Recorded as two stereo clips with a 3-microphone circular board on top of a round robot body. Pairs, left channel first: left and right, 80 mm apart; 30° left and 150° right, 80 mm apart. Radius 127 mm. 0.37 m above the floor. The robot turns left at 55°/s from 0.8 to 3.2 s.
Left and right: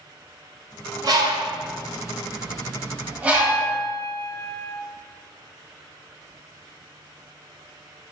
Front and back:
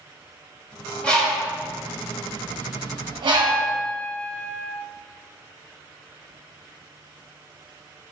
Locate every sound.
1.0 s a bird: 45° right, 1.0 m; by 3.8 s 165° right, 1.0 m
3.3 s a piano: 120° right, 0.7 m